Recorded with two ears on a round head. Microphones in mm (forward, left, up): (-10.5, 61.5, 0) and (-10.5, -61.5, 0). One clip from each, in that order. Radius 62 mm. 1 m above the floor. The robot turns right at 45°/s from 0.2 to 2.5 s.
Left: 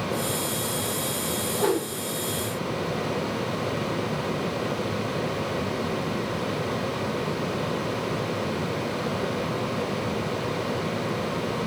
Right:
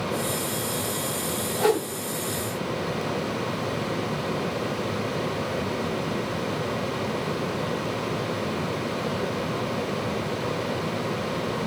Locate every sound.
1.6 s a whoosh: 40° right (ahead or behind), 5.5 m; by 1.9 s 50° right (ahead or behind), 5.5 m